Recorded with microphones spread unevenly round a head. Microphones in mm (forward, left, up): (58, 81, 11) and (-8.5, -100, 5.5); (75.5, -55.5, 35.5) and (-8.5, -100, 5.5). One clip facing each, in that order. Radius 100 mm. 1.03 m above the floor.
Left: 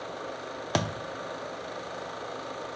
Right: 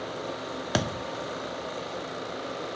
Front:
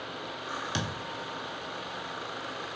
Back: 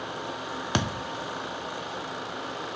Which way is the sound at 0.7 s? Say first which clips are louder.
Right 1 dB, back 6 dB; 170° left.